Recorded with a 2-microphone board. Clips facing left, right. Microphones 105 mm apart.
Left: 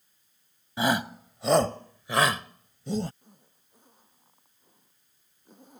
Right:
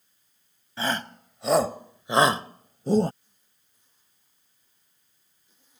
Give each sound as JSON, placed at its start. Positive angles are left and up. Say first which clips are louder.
{"t": 0.8, "sound": "a shout", "louder": "left 3 dB", "side_deg": 15}
{"t": 3.2, "sound": "a zipper", "louder": "left 14 dB", "side_deg": 50}